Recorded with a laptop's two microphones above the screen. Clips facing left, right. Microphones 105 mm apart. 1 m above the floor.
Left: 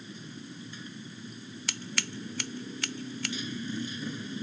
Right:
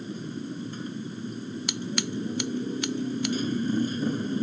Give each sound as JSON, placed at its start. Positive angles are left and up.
{"t": 0.0, "sound": "a motorcycle", "side_deg": -45}
{"t": 1.7, "sound": "scissors", "side_deg": -20}